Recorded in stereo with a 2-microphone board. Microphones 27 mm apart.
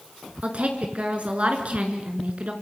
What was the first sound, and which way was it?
A woman speaking, 50° right (ahead or behind).